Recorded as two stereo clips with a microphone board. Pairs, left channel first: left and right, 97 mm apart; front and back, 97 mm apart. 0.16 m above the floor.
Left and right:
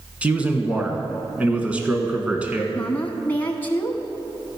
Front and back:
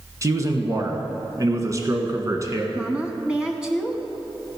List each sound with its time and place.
0.2 s a man speaking: 160° right, 1.5 m
2.8 s a woman speaking: 115° left, 1.0 m